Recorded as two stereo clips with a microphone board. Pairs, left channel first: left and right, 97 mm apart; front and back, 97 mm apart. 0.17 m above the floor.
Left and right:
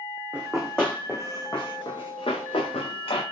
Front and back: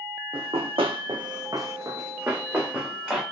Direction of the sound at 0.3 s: 170° right.